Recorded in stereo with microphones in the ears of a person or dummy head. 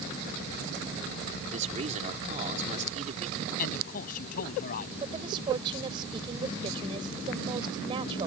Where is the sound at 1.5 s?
35° right (ahead or behind).